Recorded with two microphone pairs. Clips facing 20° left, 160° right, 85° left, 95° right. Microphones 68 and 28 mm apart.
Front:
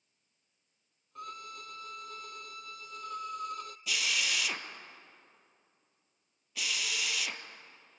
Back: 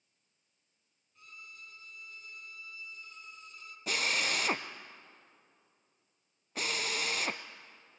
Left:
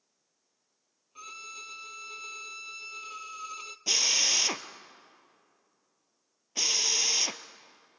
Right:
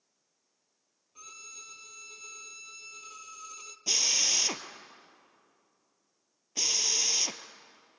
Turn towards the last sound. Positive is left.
turn(degrees=155)